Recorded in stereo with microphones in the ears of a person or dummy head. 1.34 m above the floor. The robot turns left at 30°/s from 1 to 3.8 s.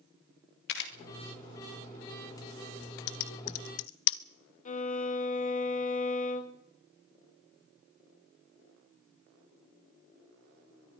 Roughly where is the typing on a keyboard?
Left.